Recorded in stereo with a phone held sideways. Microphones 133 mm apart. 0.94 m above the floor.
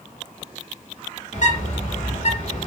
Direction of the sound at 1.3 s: 55° left (ahead or behind).